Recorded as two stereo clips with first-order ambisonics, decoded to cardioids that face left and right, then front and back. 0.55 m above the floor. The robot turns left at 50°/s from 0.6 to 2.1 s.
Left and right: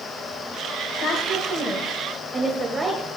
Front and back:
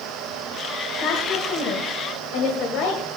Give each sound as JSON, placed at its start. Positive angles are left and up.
{"t": 1.0, "sound": "a woman speaking", "azimuth_deg": 40, "distance_m": 2.0}